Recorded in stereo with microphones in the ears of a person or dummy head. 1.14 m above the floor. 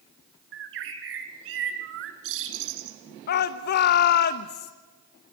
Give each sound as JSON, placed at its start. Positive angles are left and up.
{"t": 0.5, "sound": "a bird", "side_deg": -70, "distance_m": 2.5}
{"t": 3.3, "sound": "a shout", "side_deg": 55, "distance_m": 0.7}